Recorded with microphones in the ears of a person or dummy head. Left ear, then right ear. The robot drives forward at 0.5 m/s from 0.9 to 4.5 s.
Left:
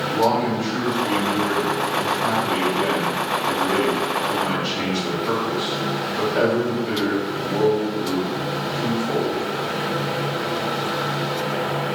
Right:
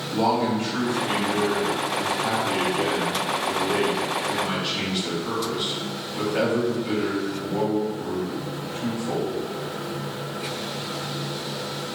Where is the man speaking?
Centre (ahead or behind), 1.3 m.